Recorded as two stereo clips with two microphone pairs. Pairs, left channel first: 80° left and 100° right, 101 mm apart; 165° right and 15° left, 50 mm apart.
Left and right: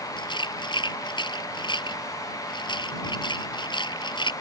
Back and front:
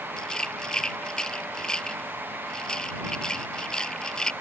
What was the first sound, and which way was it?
A rattle, 120° left.